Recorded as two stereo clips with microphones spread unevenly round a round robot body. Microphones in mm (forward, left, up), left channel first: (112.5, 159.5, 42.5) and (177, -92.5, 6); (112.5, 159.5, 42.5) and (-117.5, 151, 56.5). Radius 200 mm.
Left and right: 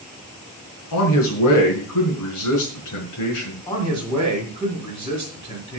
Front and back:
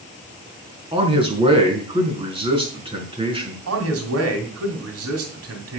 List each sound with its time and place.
0.9 s a man speaking: 115° left, 4.5 m
3.7 s a man speaking: straight behind, 2.5 m